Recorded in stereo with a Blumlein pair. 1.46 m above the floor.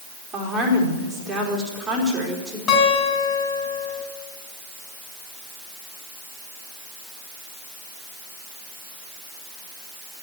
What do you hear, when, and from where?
0.3 s a woman speaking: 10° right, 4 m
2.7 s a guitar: 30° left, 7 m